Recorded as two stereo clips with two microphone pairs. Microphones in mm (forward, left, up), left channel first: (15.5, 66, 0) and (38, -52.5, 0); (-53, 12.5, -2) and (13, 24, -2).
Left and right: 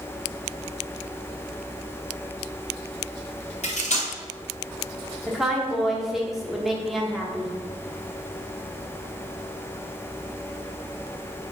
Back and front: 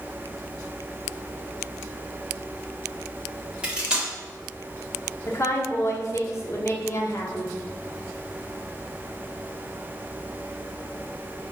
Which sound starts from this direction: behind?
A woman speaking, at 5.3 s.